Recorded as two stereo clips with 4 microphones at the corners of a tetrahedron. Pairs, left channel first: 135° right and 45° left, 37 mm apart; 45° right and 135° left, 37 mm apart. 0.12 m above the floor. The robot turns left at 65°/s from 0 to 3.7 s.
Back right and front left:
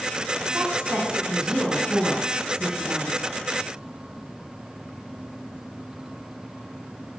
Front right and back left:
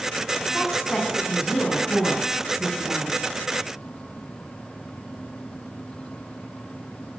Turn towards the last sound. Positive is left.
turn(degrees=-165)